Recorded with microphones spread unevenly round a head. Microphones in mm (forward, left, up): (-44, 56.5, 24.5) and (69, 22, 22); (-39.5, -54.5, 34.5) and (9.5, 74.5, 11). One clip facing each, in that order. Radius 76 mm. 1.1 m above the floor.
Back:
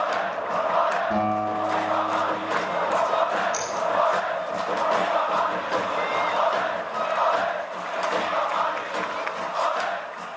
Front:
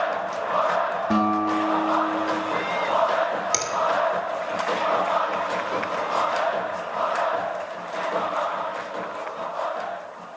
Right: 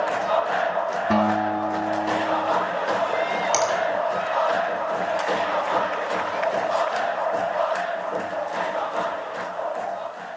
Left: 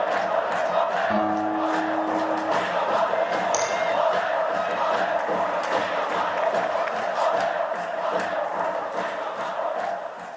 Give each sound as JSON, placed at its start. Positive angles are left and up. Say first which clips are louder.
{"t": 1.1, "sound": "a guitar", "louder": "front 2 dB, right 2 dB", "azimuth_deg": -65, "distance_m": 5.5}
{"t": 3.5, "sound": "a finger snap", "louder": "even, right 3 dB", "azimuth_deg": -35, "distance_m": 2.5}